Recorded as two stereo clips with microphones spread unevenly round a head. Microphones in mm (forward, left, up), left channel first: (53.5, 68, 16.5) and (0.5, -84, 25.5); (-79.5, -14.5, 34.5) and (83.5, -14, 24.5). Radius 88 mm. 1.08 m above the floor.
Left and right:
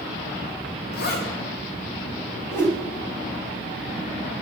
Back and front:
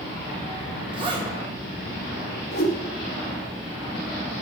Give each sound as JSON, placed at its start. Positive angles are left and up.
{"t": 0.9, "sound": "a zipper", "azimuth_deg": 60, "distance_m": 2.0}
{"t": 2.5, "sound": "a whoosh", "azimuth_deg": 145, "distance_m": 1.6}